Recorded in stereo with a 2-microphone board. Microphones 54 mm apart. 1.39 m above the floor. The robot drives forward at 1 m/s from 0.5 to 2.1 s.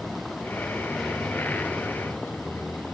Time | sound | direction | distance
0.0 | a vehicle | centre (ahead or behind) | ?